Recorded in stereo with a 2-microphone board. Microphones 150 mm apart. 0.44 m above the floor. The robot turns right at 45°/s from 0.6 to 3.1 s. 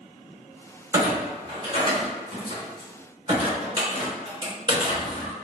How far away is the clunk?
About 1.8 m.